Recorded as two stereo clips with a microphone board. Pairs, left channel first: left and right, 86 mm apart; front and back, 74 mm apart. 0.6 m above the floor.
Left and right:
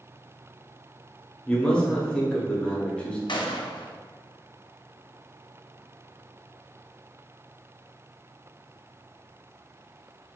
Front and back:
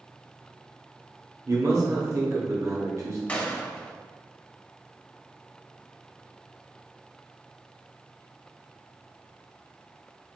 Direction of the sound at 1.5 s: 165° left.